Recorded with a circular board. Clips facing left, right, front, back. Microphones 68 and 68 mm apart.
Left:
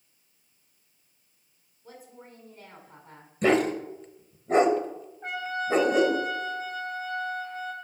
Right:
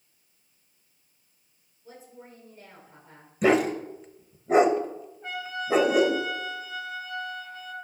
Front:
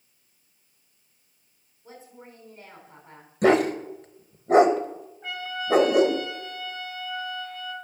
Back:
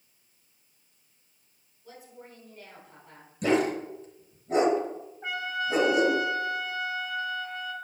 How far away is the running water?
I don't hear running water.